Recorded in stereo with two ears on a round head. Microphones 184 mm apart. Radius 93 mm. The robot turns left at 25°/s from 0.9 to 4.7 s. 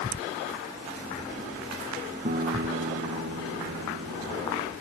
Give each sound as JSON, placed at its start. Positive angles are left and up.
{"t": 2.2, "sound": "a guitar", "azimuth_deg": -35}